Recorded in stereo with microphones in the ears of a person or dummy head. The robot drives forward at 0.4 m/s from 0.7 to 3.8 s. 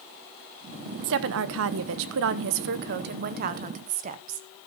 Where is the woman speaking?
70° right (ahead or behind), 0.8 m; by 4.5 s 40° right (ahead or behind), 1.2 m.